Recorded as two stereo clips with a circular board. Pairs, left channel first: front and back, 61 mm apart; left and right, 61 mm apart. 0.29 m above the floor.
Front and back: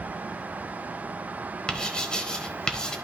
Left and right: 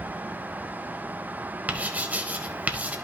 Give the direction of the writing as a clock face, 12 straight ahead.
2 o'clock.